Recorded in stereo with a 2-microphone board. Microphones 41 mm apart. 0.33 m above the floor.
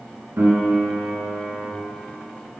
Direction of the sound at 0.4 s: 70° right (ahead or behind).